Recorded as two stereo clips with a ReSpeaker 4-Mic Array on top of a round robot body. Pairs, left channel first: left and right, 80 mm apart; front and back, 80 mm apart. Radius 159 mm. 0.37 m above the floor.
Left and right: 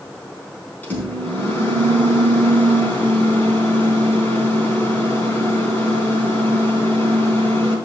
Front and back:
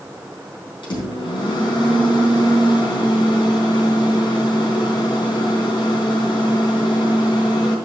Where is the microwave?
20° left, 3.5 m.